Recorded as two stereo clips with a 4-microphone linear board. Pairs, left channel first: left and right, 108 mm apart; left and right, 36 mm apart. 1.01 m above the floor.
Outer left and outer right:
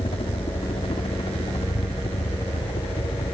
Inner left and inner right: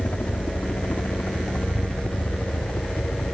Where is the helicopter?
60° left (ahead or behind).